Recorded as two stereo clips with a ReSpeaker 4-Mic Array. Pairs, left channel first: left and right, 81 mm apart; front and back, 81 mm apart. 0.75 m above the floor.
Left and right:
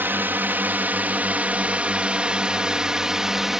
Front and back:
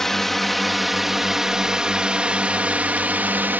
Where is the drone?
80° right; by 3.6 s 170° right.